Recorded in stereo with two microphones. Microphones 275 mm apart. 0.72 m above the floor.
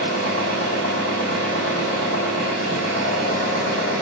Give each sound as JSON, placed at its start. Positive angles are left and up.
{"t": 0.0, "sound": "an engine running", "side_deg": -75, "distance_m": 2.0}